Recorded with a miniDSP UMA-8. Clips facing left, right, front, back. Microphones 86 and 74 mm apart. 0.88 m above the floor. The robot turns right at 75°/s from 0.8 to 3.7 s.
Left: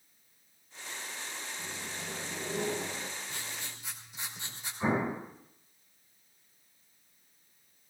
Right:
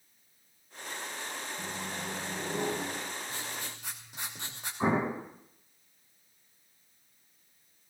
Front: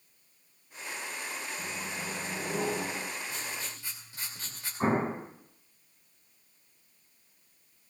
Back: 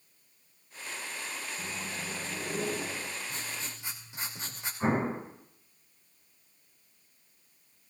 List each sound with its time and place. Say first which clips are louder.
1.6 s a microwave: right 4 dB, front 1 dB; 110° right, 5 m; by 3.1 s 5° left, 5 m
3.3 s writing: right 3 dB, front 1 dB; 140° right, 3 m; by 4.7 s 110° right, 3 m
4.8 s an explosion: right 2 dB, front 1 dB; 45° right, 8.5 m